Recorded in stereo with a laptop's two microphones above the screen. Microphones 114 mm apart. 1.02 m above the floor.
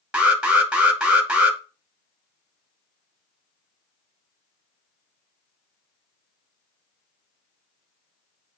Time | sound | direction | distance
0.1 | an alarm | 10° right (ahead or behind) | 0.8 m